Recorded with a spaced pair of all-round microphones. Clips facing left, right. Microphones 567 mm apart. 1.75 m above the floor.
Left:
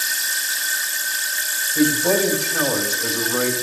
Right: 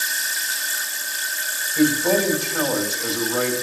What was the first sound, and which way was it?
A man speaking, 65° left (ahead or behind).